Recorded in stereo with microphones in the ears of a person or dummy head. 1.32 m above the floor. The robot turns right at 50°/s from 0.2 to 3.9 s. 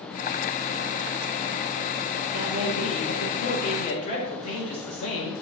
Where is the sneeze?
No sneeze in this recording.